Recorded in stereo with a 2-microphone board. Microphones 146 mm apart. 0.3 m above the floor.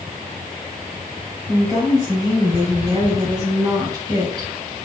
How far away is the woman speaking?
About 2.5 m.